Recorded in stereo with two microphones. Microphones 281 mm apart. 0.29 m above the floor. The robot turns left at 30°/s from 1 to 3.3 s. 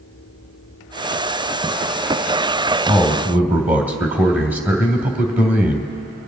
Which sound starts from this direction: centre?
A man speaking, at 2.9 s.